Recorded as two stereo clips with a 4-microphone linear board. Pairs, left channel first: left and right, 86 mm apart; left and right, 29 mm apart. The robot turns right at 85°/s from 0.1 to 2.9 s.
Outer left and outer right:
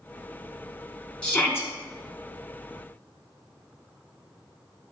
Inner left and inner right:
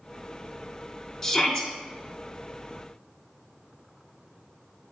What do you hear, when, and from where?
1.2 s a shout: 25° left, 1.8 m; by 1.7 s 65° left, 1.8 m